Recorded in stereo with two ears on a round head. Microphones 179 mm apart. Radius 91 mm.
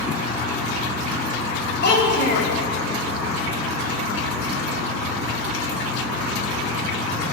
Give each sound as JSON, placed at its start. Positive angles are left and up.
{"t": 1.8, "sound": "a child speaking", "side_deg": 50, "distance_m": 2.5}